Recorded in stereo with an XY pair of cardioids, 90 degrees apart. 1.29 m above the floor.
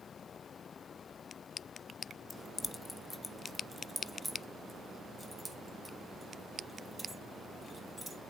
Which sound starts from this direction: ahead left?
Keys jangling, at 2.3 s.